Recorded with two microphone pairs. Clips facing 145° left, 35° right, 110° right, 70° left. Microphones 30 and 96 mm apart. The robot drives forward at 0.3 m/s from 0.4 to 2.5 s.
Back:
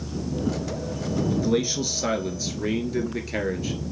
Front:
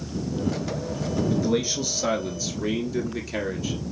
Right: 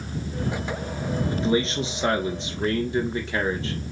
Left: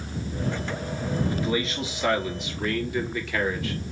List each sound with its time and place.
1.3 s a man speaking: 130° right, 1.2 m; by 3.8 s 150° right, 1.3 m